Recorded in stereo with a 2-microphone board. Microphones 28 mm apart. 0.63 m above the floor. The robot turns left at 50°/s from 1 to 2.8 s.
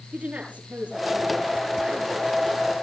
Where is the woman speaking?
70° right, 9.5 m; by 2.3 s 135° right, 9.5 m.